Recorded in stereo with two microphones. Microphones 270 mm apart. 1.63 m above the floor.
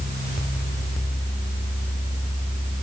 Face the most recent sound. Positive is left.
No sound to turn to.